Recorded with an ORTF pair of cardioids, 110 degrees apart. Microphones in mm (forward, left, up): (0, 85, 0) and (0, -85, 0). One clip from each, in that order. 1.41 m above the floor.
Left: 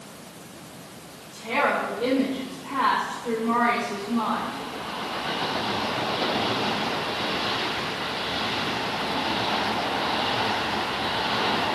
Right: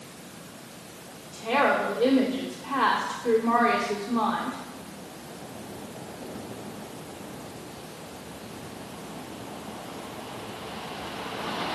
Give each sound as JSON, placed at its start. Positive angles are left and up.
{"t": 1.3, "sound": "a woman speaking", "azimuth_deg": -30, "distance_m": 2.0}